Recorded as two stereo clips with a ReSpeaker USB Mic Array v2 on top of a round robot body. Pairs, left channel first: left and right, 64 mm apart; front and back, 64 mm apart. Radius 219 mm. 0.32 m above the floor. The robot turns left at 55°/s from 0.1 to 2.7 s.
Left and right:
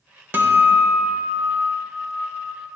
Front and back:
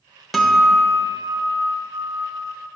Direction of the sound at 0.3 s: 85° right.